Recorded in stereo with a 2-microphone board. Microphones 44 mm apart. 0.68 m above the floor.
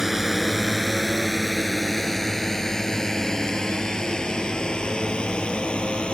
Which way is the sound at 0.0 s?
10° right (ahead or behind).